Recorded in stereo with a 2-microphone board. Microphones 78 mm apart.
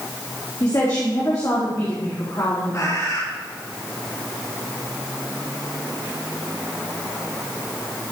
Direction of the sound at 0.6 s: 45° left (ahead or behind).